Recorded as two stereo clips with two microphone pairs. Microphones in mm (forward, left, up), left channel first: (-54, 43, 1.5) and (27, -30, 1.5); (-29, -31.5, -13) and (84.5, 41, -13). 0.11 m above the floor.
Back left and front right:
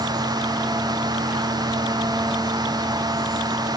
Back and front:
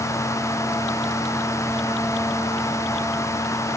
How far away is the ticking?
No ticking in this recording.